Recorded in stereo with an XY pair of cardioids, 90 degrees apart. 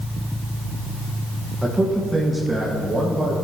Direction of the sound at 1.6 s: 10° right.